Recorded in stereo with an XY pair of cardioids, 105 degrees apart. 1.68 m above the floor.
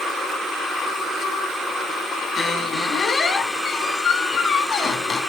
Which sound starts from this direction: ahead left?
A squeak, at 2.4 s.